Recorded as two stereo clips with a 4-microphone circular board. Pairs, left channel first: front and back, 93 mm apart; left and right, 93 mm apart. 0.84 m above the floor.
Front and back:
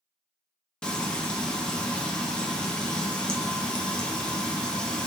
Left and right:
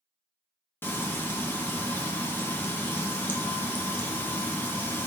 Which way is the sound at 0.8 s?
70° left.